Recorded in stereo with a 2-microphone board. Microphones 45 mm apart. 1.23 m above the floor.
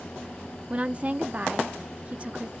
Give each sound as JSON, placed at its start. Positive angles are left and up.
{"t": 0.7, "sound": "a woman speaking", "side_deg": -25, "distance_m": 0.6}